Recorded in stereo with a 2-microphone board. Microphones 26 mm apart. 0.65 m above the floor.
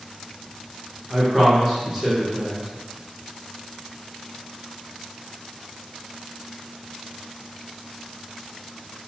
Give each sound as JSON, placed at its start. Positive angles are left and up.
{"t": 1.1, "sound": "a man speaking", "side_deg": -10, "distance_m": 0.8}